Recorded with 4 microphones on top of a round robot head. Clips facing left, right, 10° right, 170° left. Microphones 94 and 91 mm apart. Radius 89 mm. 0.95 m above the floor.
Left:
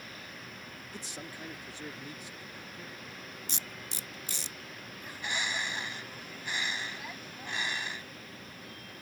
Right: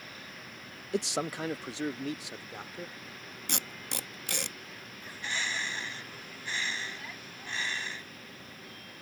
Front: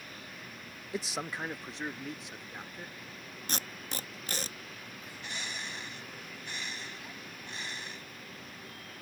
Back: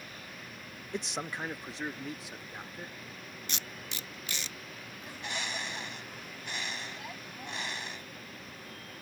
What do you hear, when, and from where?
0.9 s a man speaking: 95° right; by 2.9 s 100° right
3.5 s tape being pulled: 60° right
5.0 s a bird: 160° left